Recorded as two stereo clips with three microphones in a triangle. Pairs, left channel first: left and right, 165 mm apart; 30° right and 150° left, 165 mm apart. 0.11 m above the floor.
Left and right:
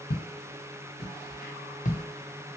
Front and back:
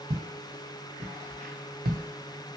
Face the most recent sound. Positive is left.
turn(degrees=155)